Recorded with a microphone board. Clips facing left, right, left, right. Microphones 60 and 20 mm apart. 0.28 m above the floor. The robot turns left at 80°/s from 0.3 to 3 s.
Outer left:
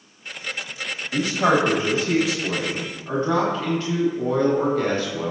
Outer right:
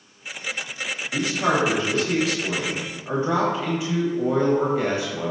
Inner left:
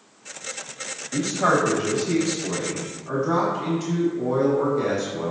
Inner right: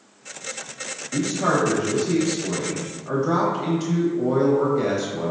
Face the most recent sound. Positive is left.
turn(degrees=-20)